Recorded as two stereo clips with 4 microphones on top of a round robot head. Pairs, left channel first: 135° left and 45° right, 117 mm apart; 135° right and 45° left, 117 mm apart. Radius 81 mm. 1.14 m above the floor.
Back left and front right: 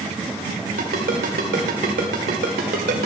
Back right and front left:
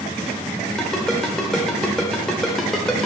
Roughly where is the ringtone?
Ahead right.